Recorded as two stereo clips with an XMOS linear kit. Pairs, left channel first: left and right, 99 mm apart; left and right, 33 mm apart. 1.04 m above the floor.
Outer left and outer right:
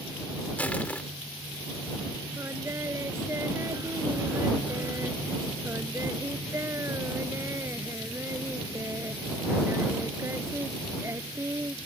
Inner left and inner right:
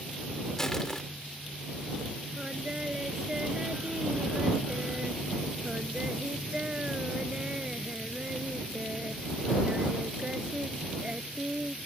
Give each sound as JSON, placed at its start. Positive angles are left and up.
{"t": 0.6, "sound": "crushing", "side_deg": 15}
{"t": 2.4, "sound": "singing", "side_deg": -25}